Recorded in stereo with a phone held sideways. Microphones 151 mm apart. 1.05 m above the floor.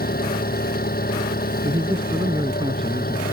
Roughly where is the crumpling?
I don't hear crumpling.